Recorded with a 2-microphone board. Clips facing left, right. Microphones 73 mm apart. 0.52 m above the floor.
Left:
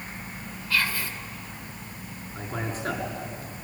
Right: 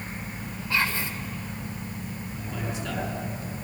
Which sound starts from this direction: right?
Whispering, at 0.7 s.